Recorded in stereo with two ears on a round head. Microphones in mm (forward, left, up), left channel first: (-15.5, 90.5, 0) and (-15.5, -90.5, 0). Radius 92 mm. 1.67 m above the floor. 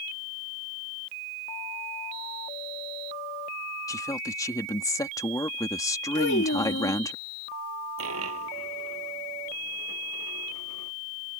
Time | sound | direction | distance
3.9 | a woman speaking | 20° left (ahead or behind) | ?
6.2 | a child speaking | 70° left (ahead or behind) | ?
8.0 | a dropped coin | 85° right | ?